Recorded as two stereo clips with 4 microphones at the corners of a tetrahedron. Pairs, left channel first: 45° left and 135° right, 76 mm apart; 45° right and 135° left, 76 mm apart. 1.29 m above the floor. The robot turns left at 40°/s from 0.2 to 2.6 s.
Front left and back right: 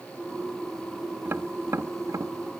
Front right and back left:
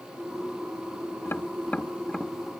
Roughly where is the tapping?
Right.